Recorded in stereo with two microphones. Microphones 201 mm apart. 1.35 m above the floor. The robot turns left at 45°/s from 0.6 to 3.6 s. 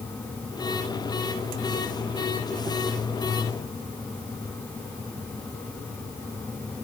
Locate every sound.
Only background noise.